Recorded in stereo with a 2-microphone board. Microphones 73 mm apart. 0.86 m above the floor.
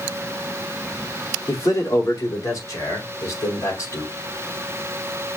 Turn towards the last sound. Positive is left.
turn(degrees=50)  # may be behind; listen again after turning